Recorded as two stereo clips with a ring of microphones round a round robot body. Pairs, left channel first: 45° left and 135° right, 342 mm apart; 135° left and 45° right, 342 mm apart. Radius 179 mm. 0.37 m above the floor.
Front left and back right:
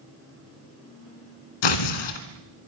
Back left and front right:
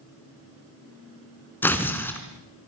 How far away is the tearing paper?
About 3 m.